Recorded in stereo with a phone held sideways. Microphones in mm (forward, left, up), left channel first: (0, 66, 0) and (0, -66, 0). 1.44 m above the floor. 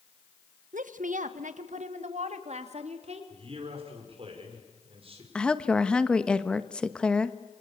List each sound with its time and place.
0.7 s a woman speaking: 90° right, 1.3 m; by 3.2 s 55° right (ahead or behind), 3.5 m
3.3 s a man speaking: 45° right (ahead or behind), 5.5 m
5.3 s a woman speaking: 5° left (ahead or behind), 1.3 m